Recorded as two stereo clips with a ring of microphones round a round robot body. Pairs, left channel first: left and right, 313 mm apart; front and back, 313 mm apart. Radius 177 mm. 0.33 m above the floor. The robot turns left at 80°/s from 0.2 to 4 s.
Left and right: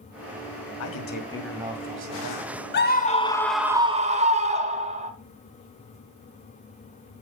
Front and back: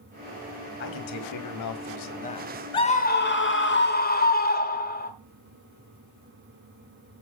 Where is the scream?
65° left, 1.3 m; by 5.1 s 35° right, 1.3 m.